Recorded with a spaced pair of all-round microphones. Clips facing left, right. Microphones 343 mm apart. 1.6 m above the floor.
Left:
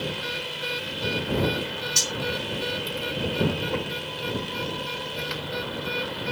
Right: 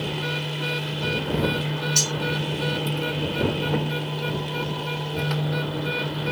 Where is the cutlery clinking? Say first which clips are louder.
Right 4 dB; 25° left (ahead or behind).